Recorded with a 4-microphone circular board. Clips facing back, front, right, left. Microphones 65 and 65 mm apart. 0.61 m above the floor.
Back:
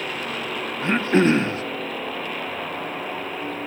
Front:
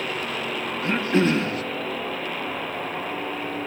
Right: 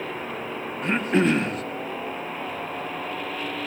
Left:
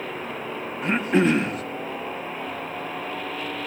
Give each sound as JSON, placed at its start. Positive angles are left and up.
{"t": 0.8, "sound": "throat clearing", "azimuth_deg": 175, "distance_m": 0.6}